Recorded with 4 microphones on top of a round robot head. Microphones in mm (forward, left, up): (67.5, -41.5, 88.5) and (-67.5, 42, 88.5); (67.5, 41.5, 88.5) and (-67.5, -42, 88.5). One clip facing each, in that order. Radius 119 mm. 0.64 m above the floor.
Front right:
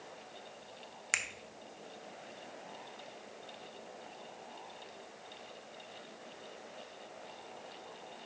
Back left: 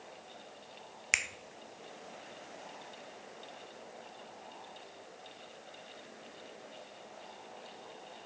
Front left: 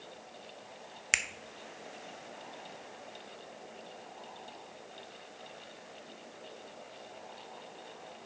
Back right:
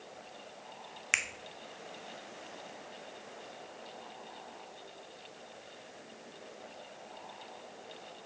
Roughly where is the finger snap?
Left.